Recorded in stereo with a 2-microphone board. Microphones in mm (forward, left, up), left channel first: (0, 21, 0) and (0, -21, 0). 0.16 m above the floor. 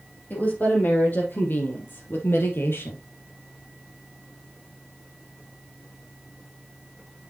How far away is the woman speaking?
About 6 m.